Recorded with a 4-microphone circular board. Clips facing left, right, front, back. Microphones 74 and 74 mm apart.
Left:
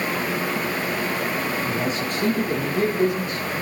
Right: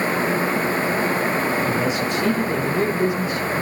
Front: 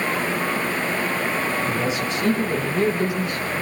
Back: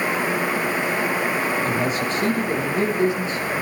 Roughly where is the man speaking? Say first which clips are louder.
Right 3 dB, back 1 dB; behind left.